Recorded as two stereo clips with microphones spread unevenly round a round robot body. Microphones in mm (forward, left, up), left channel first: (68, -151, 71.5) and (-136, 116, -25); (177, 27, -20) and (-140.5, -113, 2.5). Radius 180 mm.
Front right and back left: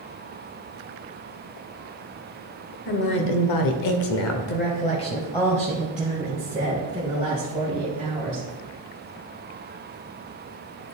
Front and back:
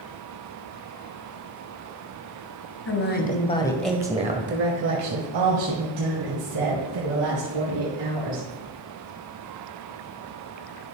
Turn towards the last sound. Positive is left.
turn(degrees=-165)